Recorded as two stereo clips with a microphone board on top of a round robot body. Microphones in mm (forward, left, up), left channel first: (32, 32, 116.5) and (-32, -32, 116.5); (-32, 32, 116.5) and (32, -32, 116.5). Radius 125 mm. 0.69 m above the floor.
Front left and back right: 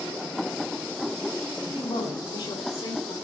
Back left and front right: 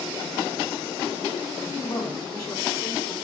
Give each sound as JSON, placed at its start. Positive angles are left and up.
{"t": 1.6, "sound": "a man speaking", "azimuth_deg": 85, "distance_m": 8.0}